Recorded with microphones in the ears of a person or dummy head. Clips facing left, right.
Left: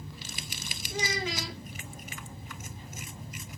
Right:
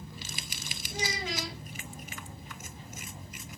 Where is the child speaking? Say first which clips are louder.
Left 2 dB; 60° left (ahead or behind), 2.5 m.